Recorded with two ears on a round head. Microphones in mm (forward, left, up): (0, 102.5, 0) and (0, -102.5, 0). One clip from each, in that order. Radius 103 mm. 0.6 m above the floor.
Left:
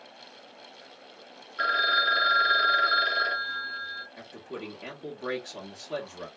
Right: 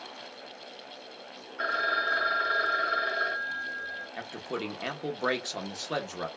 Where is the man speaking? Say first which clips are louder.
Right 5 dB; 35° right (ahead or behind), 0.8 m.